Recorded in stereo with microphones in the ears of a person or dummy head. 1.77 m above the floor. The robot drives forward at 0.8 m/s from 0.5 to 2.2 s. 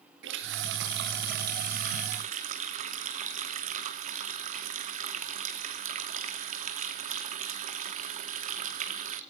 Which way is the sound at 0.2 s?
65° right (ahead or behind).